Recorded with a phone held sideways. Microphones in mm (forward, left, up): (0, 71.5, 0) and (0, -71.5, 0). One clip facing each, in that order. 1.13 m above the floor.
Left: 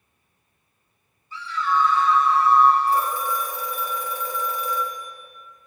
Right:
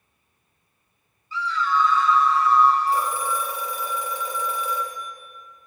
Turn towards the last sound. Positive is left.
turn(degrees=-10)  # may be behind; listen again after turning